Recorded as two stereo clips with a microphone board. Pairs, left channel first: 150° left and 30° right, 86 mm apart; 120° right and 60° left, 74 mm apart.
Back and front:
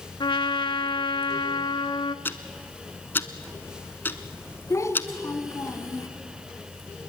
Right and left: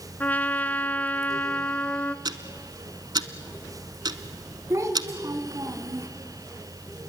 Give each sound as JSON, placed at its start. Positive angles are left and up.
{"t": 0.2, "sound": "a trumpet", "azimuth_deg": 170, "distance_m": 0.6}
{"t": 2.2, "sound": "ticking", "azimuth_deg": 85, "distance_m": 1.0}
{"t": 4.7, "sound": "a child speaking", "azimuth_deg": 100, "distance_m": 2.0}